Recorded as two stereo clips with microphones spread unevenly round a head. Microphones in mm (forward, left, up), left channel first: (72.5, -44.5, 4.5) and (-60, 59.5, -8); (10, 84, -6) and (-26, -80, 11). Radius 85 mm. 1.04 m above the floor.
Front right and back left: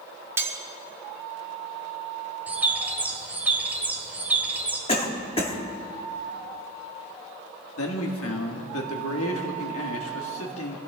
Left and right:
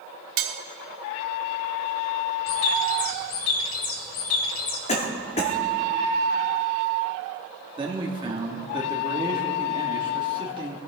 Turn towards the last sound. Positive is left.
turn(degrees=-35)